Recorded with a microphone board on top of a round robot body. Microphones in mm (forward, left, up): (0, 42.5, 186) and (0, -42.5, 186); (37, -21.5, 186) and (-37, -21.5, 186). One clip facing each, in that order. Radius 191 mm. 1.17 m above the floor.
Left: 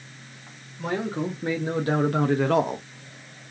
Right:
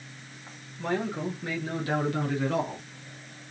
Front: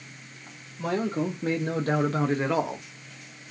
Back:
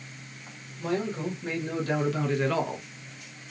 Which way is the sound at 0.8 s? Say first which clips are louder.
Left 2 dB, front 2 dB; 20° left.